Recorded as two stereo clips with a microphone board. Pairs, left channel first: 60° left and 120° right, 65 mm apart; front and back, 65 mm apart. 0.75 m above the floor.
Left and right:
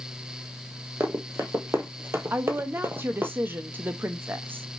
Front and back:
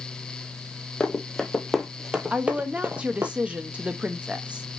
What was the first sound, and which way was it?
Running footsteps, 75° right.